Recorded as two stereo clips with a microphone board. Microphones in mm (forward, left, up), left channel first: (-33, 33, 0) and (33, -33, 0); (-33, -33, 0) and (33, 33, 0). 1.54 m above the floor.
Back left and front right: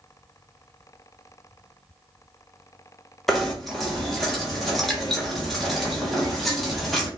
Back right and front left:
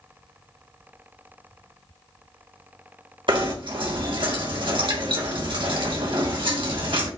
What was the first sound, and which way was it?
Knocking, 45° left.